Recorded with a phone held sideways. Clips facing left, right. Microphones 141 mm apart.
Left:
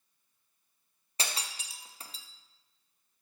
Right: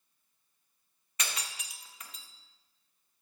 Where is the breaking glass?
30° left (ahead or behind), 0.6 m.